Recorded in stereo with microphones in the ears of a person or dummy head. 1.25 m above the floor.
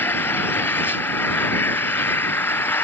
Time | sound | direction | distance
0.0 | an engine running | 5° left (ahead or behind) | ?